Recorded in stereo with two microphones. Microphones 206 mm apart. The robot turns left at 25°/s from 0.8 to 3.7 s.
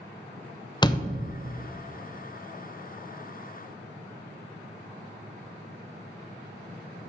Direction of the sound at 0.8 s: 20° left (ahead or behind).